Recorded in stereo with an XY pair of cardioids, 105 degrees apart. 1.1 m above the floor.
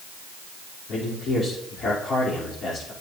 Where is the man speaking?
60° left, 3.5 m.